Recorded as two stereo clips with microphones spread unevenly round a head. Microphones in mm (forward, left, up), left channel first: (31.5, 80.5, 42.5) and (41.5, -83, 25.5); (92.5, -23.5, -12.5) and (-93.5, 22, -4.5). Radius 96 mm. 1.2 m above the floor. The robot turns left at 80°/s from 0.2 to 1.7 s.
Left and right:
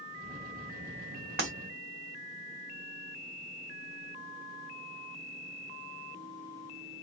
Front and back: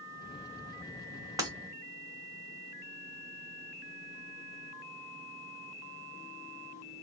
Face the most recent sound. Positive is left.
turn(degrees=-155)